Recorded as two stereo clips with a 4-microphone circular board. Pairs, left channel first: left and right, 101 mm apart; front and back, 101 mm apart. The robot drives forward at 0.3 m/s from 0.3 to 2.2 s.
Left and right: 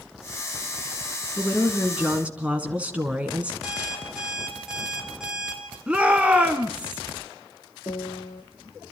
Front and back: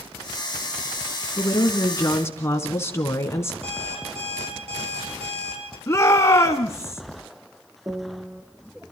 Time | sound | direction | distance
1.4 | a woman speaking | 20° right | 1.3 m
3.6 | an alarm clock | 175° right | 4 m
5.9 | a shout | 20° right | 1.1 m
7.9 | a piano | 125° left | 1.2 m